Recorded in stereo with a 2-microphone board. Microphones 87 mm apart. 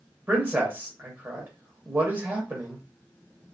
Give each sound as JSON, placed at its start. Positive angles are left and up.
{"t": 0.3, "sound": "a man speaking", "side_deg": -25, "distance_m": 1.0}